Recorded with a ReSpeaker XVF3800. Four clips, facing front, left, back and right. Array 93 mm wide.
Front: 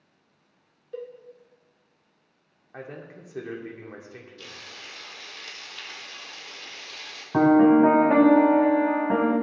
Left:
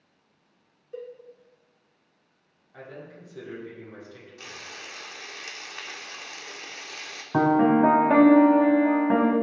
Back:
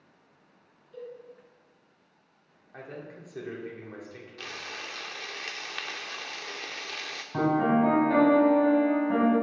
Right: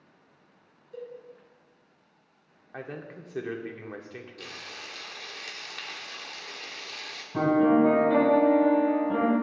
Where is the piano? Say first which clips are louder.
Left 2 dB, front 8 dB; 60° left, 1.2 m.